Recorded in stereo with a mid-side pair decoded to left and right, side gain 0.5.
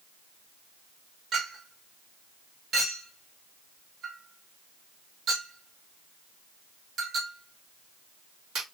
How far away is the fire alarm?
No fire alarm in this recording.